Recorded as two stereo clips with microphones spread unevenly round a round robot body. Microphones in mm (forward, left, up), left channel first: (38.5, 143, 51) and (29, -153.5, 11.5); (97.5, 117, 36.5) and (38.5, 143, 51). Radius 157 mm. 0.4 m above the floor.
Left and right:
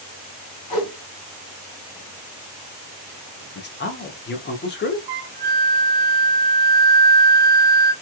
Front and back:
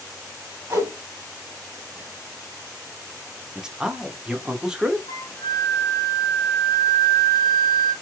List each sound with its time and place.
0.7 s a whoosh: 105° left, 2 m
3.5 s a man speaking: 60° left, 0.8 m
5.1 s a flute: 80° right, 0.5 m